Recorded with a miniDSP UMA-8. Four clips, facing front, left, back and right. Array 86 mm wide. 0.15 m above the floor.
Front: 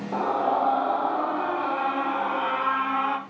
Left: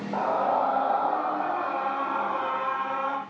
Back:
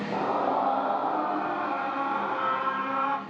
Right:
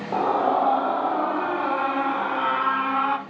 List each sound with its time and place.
0.1 s a scream: 90° right, 3.5 m; by 3.2 s 80° right, 1.3 m